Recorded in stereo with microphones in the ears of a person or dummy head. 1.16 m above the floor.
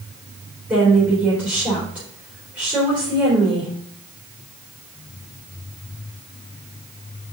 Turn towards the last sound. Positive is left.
turn(degrees=-5)  # may be behind; listen again after turning